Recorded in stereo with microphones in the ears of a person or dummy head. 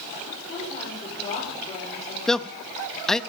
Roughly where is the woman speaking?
Left.